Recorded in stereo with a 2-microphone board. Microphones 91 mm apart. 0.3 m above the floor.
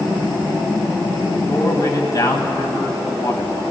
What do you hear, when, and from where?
1.5 s a man speaking: 40° left (ahead or behind), 1.4 m